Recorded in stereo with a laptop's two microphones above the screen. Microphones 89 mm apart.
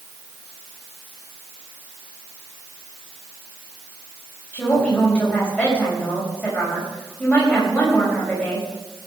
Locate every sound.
4.5 s a woman speaking: 10° left (ahead or behind), 5.5 m